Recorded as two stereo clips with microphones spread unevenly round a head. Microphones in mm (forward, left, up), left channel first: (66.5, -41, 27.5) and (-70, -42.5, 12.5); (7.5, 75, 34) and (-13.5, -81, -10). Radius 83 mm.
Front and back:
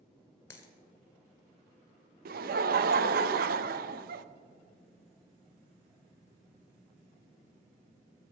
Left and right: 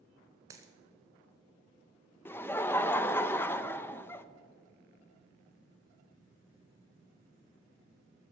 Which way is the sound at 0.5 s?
15° right.